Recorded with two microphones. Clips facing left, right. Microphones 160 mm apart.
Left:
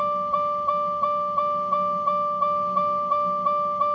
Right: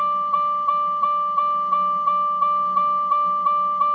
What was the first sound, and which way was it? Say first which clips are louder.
A vehicle: right 1 dB; 35° left (ahead or behind).